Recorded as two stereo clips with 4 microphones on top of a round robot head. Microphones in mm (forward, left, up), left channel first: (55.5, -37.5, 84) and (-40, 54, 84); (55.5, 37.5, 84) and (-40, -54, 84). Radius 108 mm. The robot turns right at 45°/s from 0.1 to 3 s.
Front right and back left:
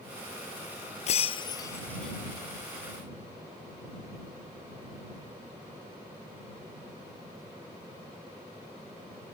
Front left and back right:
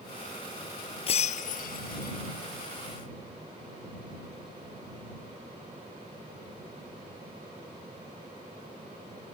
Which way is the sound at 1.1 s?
5° right.